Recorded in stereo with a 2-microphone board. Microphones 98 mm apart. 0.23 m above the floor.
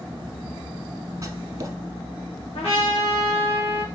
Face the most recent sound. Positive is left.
turn(degrees=75)  # may be behind; listen again after turning